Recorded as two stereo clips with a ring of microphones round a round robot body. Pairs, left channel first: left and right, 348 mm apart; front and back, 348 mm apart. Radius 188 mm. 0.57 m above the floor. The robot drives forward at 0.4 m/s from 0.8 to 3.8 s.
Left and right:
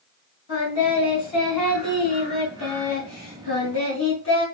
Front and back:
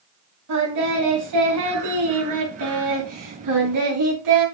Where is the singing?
140° left, 3.5 m; by 4.5 s 150° left, 4.5 m.